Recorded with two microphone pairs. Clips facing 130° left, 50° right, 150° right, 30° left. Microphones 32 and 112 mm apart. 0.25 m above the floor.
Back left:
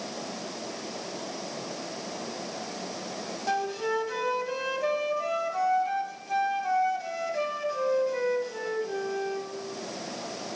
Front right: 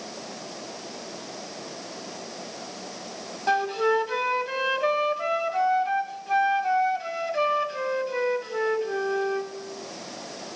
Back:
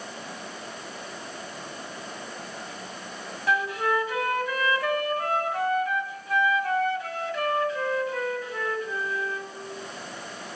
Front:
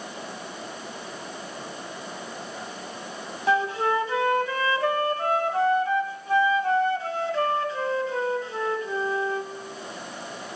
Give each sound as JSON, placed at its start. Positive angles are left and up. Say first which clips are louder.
{"t": 3.5, "sound": "a flute", "louder": "front right 6 dB, front 3 dB", "azimuth_deg": -10, "distance_m": 0.9}